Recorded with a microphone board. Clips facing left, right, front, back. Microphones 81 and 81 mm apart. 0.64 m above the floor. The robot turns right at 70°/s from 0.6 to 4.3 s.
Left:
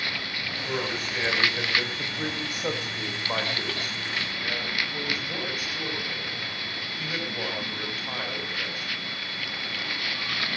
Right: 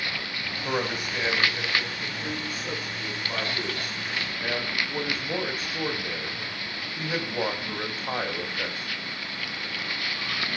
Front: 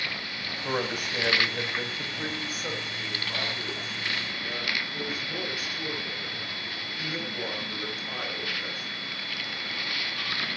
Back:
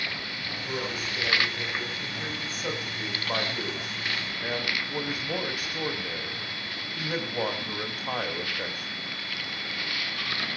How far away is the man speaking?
About 5 m.